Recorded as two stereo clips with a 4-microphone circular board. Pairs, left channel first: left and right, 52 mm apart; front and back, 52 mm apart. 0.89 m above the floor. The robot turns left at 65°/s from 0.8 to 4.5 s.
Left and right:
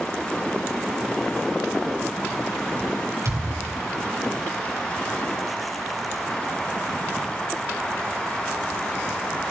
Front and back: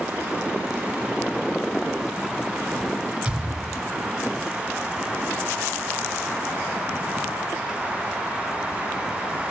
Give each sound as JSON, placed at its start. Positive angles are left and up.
{"t": 3.2, "sound": "a thud", "azimuth_deg": -105, "distance_m": 4.0}